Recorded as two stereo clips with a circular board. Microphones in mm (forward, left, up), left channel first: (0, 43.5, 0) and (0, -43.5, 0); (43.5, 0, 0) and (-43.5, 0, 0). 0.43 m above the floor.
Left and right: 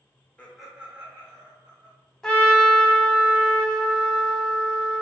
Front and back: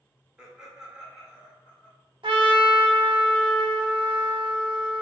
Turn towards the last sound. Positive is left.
turn(degrees=175)